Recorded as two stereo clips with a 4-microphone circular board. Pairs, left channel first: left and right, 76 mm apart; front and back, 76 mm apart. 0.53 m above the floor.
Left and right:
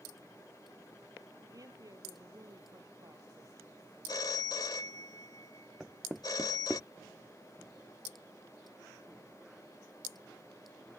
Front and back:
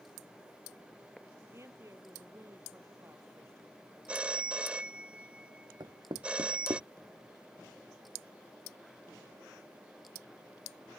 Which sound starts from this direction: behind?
Knocking, at 5.8 s.